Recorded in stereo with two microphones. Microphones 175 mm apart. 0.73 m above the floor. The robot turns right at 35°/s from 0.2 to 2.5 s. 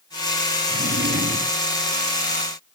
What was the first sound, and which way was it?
A drawer, 80° right.